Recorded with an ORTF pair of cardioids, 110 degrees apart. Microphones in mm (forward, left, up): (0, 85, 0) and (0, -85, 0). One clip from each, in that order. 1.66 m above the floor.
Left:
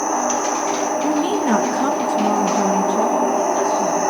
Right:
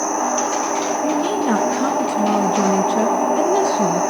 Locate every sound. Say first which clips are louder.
1.0 s a woman speaking: even; 10° left, 2.5 m; by 4.0 s 65° right, 1.5 m